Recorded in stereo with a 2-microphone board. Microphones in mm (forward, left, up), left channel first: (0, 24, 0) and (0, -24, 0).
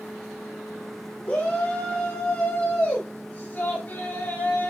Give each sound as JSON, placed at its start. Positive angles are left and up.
{"t": 1.2, "sound": "a shout", "side_deg": 30, "distance_m": 4.5}